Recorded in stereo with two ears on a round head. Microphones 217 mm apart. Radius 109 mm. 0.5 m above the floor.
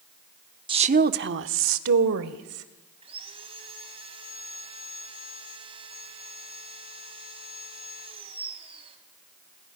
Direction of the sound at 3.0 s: 25° right (ahead or behind).